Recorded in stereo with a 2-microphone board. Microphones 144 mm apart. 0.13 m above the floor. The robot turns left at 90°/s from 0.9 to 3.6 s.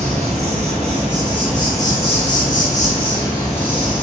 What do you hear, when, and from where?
0.0 s an insect: 125° right, 1.2 m; by 4.0 s 10° right, 1.2 m